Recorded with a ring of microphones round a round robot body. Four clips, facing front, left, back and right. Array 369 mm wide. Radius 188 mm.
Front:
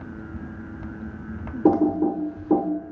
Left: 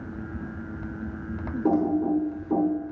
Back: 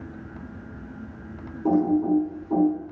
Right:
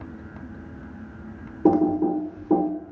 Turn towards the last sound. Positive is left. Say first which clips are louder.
# right 4 dB, front 2 dB
turn(degrees=-40)